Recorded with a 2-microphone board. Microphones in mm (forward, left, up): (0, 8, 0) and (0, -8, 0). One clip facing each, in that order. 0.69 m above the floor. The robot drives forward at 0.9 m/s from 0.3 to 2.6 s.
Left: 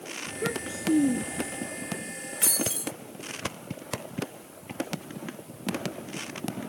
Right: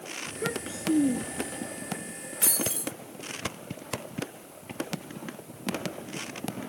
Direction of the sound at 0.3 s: 10° right (ahead or behind).